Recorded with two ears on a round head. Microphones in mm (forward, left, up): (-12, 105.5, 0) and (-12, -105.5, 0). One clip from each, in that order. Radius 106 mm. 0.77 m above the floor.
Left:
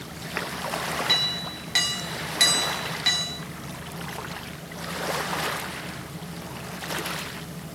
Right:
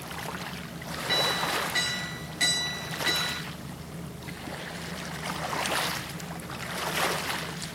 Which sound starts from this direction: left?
A clink, at 1.1 s.